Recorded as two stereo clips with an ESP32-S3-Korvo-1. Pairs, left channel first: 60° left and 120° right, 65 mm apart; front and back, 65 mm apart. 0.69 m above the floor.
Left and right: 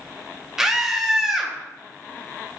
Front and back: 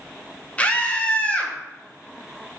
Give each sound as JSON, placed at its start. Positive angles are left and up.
{"t": 0.6, "sound": "a scream", "azimuth_deg": -45, "distance_m": 0.5}